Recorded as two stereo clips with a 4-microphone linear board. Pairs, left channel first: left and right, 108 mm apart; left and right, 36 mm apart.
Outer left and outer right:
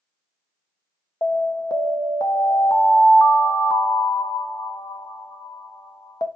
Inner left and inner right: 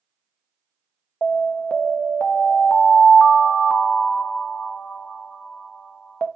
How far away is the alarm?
About 0.6 m.